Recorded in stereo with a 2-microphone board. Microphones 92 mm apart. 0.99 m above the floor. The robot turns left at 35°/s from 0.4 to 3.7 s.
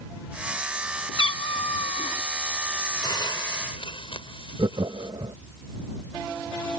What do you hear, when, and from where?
1.2 s a cat meowing: 120° left; by 2.2 s 85° left
3.0 s a hiss: 45° left (ahead or behind); by 5.1 s 65° left (ahead or behind)
4.6 s laughter: 60° right (ahead or behind)